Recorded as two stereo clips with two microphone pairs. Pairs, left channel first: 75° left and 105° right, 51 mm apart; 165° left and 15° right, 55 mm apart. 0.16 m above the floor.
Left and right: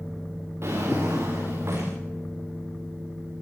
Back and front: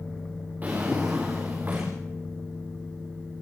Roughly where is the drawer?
Right.